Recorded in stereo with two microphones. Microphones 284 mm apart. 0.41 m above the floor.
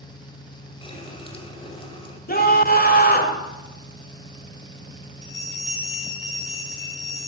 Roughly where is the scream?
Left.